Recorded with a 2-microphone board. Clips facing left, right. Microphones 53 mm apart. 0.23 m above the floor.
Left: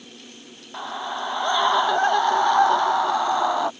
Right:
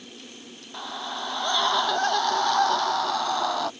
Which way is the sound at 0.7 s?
20° left (ahead or behind).